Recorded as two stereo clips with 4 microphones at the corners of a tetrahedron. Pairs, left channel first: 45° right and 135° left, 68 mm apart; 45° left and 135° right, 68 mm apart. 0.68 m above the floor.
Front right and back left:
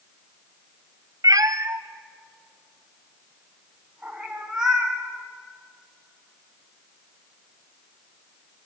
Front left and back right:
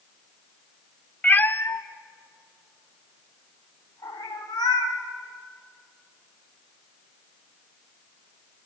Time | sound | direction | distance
1.2 | a cat meowing | 115° left | 0.7 m